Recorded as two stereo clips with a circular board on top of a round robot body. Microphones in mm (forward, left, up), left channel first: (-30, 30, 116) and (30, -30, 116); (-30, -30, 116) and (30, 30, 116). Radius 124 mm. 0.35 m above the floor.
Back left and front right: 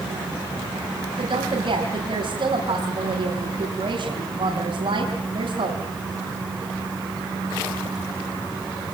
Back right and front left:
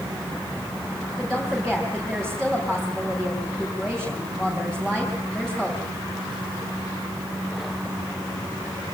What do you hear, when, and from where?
1.2 s a woman speaking: 50° right, 4 m